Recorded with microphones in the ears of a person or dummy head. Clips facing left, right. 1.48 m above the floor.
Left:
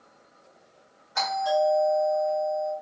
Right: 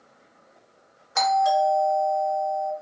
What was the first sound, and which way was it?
A doorbell, 65° right (ahead or behind).